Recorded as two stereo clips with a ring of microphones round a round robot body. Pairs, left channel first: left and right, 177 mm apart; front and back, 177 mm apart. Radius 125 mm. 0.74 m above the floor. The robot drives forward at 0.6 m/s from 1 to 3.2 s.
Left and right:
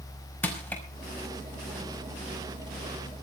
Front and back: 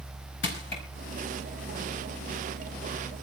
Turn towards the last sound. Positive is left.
turn(degrees=15)